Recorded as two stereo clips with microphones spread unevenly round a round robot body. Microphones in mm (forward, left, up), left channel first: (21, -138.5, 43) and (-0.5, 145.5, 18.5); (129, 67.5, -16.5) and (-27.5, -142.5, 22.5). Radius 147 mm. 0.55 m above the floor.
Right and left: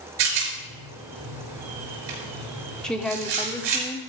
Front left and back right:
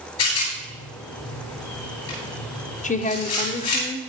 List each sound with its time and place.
0.2 s a rattle: 100° left, 5 m
2.8 s a woman speaking: 5° left, 1.1 m